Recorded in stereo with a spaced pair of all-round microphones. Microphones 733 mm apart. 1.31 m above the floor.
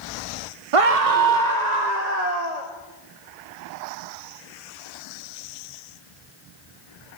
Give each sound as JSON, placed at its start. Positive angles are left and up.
{"t": 0.7, "sound": "a scream", "side_deg": -50, "distance_m": 0.5}